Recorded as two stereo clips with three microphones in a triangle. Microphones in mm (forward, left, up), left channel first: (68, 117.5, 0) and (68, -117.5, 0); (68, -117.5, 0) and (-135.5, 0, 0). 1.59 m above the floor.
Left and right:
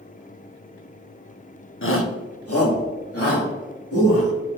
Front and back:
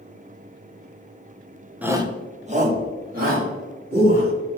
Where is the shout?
65° left, 0.7 m; by 4.3 s 105° left, 3.5 m.